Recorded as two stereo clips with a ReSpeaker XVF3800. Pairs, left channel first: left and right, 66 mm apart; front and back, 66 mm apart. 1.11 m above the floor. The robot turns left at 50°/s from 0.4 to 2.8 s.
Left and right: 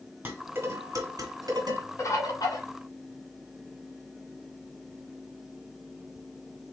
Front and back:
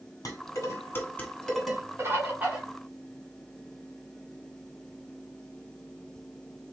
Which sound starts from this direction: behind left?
A bird, at 2.0 s.